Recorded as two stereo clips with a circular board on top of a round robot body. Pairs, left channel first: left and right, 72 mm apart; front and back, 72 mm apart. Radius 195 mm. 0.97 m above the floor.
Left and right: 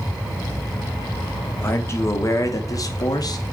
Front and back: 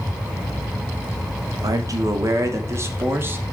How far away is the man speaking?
About 3 m.